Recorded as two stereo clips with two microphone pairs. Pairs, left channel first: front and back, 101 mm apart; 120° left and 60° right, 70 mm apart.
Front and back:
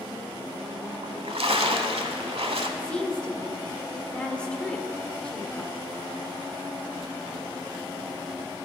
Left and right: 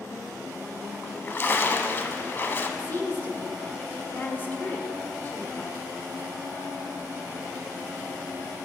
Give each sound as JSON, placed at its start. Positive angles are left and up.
{"t": 1.0, "sound": "a splash", "azimuth_deg": 175, "distance_m": 0.6}
{"t": 2.8, "sound": "a woman speaking", "azimuth_deg": 80, "distance_m": 0.9}